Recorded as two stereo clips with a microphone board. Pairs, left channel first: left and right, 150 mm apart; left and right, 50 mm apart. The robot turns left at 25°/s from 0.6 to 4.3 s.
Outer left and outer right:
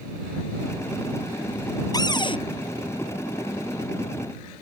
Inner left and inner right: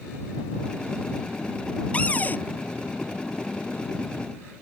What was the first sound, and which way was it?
A cupboard door, 25° left (ahead or behind).